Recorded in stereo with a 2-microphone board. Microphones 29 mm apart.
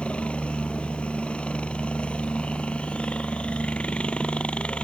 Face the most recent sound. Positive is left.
turn(degrees=50)  # may be behind; listen again after turning